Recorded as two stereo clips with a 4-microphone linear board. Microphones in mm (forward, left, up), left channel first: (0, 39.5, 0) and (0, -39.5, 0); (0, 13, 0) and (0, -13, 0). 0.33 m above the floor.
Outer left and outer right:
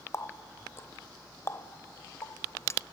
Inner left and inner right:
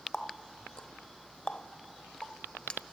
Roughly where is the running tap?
Left.